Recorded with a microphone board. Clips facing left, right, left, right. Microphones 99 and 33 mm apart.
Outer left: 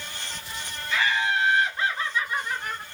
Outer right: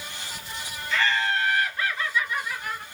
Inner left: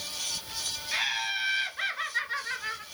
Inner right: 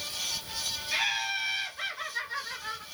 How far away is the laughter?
About 1.3 m.